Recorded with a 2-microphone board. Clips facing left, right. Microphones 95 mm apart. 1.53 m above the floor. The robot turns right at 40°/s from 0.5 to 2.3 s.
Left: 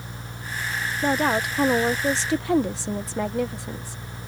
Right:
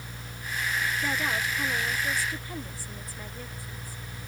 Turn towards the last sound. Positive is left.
turn(degrees=95)